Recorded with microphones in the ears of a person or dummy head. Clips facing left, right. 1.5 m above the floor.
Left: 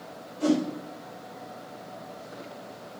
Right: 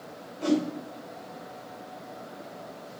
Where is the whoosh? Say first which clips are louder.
Left 1 dB; 70° left (ahead or behind), 3.5 m.